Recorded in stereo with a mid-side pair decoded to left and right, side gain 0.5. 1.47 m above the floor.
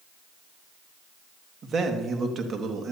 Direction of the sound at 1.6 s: 45° right.